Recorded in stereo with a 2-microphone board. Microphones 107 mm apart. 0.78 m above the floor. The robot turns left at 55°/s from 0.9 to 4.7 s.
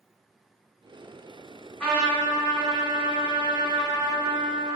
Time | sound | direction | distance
1.8 | a trumpet | 165° left | 1.2 m